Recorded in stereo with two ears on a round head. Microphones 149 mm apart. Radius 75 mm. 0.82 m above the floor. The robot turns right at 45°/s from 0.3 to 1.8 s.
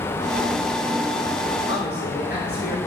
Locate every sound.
1.7 s a man speaking: 70° left (ahead or behind), 3 m; by 2.8 s 65° left (ahead or behind), 3 m